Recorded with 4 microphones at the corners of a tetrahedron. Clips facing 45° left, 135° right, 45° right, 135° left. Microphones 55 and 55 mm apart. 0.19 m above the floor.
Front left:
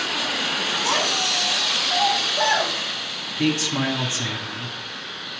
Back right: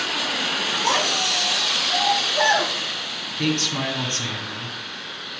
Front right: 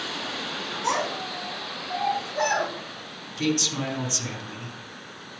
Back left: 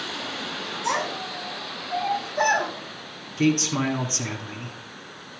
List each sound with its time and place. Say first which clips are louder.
0.8 s a child speaking: back right 2 dB, even; 95° right, 3 m; by 2.7 s 125° right, 3.5 m
3.4 s a man speaking: front left 2 dB, back left 4 dB; 120° left, 1.3 m